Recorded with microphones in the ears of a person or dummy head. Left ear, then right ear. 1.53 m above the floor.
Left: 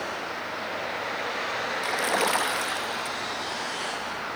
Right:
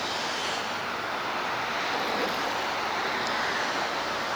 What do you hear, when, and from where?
1.8 s a splash: 50° left (ahead or behind), 1.3 m